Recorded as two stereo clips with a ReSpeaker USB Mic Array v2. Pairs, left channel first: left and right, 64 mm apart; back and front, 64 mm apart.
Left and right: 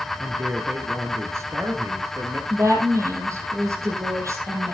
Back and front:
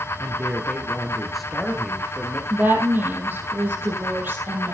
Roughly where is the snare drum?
I don't hear a snare drum.